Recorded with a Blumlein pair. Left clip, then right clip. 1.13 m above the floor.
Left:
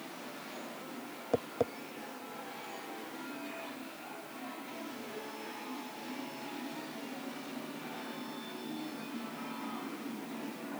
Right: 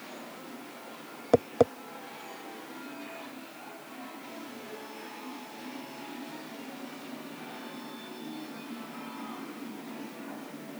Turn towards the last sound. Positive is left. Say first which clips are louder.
# right 9 dB
turn(degrees=-65)